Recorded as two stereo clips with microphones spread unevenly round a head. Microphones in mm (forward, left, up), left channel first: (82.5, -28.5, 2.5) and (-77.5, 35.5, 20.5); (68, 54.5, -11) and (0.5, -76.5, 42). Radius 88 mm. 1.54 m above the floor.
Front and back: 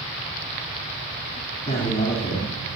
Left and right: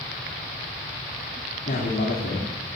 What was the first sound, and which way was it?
A man speaking, 30° left.